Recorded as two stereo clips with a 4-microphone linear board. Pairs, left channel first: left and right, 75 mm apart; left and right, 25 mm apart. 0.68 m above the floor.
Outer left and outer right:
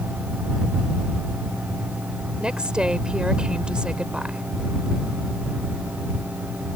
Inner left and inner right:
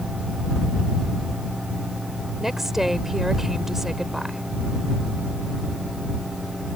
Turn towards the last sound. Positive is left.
turn(degrees=-10)  # may be behind; listen again after turning